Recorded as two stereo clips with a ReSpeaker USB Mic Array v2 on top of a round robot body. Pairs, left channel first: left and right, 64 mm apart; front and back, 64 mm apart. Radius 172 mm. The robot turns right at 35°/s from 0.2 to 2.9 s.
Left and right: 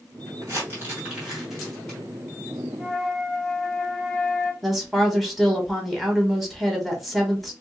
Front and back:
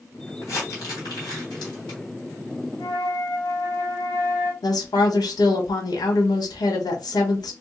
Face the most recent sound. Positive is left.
turn(degrees=0)